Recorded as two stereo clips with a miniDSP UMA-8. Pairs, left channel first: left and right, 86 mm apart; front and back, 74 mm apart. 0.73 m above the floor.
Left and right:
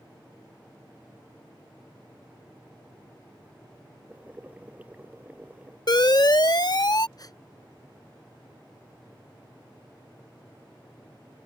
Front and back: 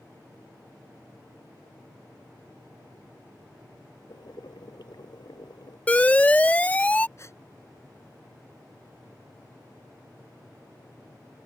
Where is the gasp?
50° left.